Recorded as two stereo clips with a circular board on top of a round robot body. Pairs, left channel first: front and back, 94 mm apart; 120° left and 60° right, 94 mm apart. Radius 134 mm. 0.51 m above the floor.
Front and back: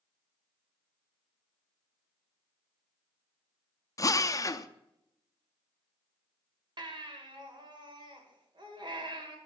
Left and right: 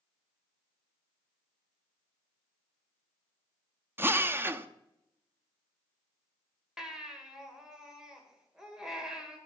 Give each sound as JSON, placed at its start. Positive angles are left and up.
{"t": 4.0, "sound": "a drill", "azimuth_deg": -10, "distance_m": 0.7}
{"t": 6.8, "sound": "a baby crying", "azimuth_deg": -145, "distance_m": 1.8}